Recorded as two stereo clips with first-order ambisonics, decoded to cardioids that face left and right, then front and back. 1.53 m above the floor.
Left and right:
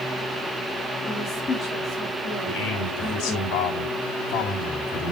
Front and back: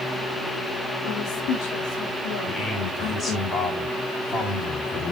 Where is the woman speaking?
15° left, 3.5 m.